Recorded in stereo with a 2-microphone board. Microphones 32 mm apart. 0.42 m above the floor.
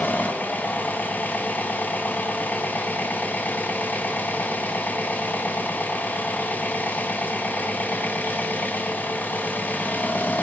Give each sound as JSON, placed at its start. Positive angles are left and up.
{"t": 0.0, "sound": "an engine running", "side_deg": 80, "distance_m": 1.5}